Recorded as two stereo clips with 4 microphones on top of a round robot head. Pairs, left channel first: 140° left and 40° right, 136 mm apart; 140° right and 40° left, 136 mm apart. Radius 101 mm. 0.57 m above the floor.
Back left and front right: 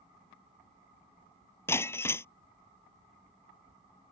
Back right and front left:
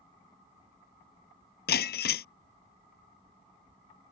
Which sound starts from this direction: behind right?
Breaking glass, at 1.7 s.